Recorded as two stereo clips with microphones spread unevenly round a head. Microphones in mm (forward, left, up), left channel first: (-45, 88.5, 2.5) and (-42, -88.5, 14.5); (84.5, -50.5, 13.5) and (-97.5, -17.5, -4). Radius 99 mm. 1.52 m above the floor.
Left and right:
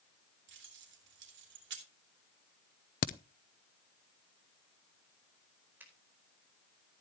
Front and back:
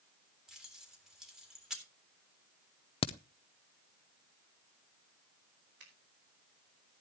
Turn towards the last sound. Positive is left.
turn(degrees=-170)